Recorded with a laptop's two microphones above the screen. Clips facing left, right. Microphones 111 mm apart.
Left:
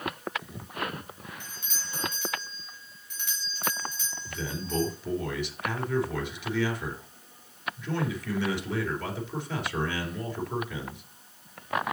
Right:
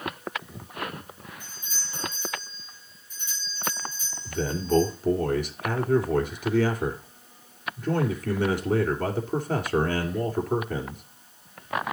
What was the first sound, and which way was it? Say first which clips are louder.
A doorbell: left 1 dB; 65° left (ahead or behind).